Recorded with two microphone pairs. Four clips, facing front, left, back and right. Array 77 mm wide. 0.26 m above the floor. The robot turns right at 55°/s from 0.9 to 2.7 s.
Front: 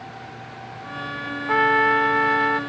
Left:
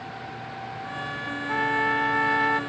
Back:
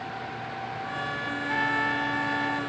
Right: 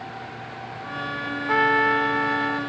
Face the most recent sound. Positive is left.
turn(degrees=40)